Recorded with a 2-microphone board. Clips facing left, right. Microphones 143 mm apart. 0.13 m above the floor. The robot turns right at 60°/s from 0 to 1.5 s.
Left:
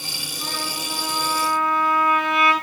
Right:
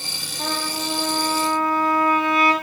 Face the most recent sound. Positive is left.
turn(degrees=-35)